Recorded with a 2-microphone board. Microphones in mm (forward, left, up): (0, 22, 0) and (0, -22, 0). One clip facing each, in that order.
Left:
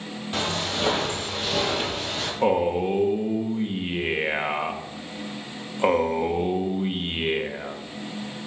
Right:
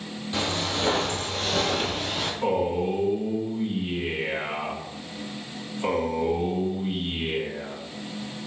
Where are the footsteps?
35° left (ahead or behind), 1.6 m; by 2.3 s 5° right (ahead or behind), 1.2 m.